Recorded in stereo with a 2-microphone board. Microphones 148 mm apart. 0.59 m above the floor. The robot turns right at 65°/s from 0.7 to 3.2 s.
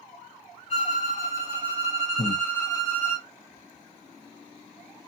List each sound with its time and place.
0.7 s a violin: 105° right, 1.5 m; by 3.2 s 55° left, 1.5 m
2.2 s breathing: 45° left (ahead or behind), 0.5 m; by 2.4 s 35° left (ahead or behind), 0.5 m